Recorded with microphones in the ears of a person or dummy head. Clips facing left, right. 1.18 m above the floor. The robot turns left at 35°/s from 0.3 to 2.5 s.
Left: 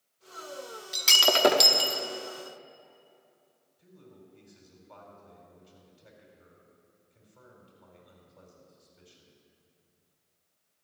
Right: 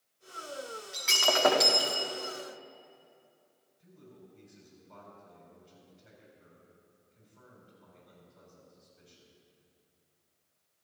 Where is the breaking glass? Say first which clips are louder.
Left 3 dB; 70° left, 1.0 m; by 2.0 s 30° left, 1.0 m.